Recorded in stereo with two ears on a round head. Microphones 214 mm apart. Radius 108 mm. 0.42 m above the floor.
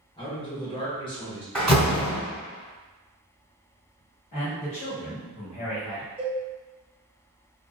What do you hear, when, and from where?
0.2 s a man speaking: 20° left (ahead or behind), 0.8 m
1.6 s a door slam: 5° left (ahead or behind), 1.3 m
4.3 s a man speaking: 40° left (ahead or behind), 1.3 m
6.2 s a cowbell: 20° right (ahead or behind), 1.1 m